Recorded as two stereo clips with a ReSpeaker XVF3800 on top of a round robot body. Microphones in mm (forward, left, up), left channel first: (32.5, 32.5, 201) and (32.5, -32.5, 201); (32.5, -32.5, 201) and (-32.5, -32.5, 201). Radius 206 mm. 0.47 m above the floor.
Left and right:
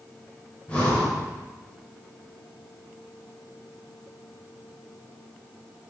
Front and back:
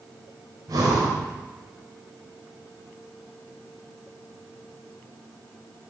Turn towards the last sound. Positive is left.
turn(degrees=160)